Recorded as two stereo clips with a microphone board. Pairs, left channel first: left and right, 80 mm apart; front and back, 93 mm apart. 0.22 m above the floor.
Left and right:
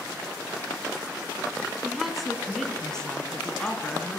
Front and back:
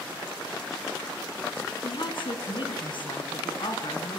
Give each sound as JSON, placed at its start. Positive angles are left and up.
{"t": 1.8, "sound": "a woman speaking", "azimuth_deg": -5, "distance_m": 3.0}